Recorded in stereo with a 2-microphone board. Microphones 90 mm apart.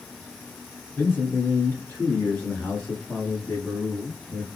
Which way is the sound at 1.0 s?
25° left (ahead or behind).